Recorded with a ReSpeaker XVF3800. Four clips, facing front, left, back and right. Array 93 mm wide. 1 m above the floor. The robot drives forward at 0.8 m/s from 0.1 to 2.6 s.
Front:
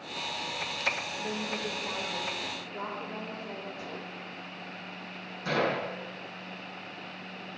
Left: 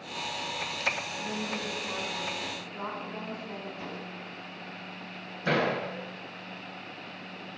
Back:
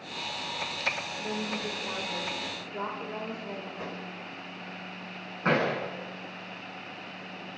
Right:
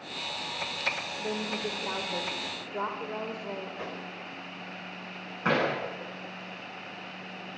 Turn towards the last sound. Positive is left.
turn(degrees=-130)